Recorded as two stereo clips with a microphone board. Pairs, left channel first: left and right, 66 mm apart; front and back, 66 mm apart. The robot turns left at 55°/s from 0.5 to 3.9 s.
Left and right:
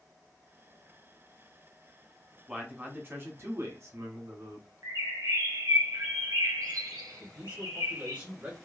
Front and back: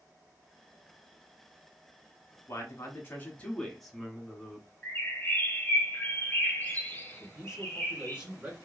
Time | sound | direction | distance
2.5 | a man speaking | 15° right | 0.9 m
4.8 | a bird | 60° right | 0.8 m
7.2 | a man speaking | 120° right | 1.3 m